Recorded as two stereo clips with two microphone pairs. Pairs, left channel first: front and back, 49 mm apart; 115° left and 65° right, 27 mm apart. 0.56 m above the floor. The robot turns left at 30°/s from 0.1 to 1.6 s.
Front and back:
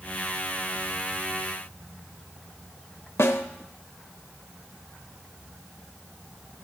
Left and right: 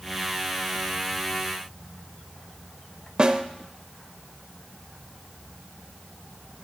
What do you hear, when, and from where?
3.2 s a snare drum: 10° right, 0.7 m